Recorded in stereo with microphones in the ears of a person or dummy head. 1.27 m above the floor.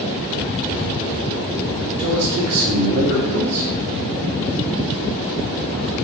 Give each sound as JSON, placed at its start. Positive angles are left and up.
{"t": 2.0, "sound": "a man speaking", "side_deg": -75, "distance_m": 0.7}